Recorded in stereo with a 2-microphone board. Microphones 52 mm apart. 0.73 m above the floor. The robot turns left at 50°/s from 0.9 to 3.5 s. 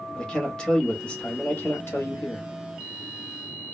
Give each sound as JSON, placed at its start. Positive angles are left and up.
{"t": 0.1, "sound": "a man speaking", "azimuth_deg": 170, "distance_m": 0.9}